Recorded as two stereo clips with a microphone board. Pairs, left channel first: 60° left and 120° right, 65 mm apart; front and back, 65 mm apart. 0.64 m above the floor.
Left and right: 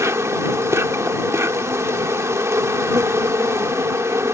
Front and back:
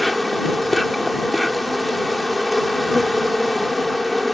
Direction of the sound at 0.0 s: 90° right.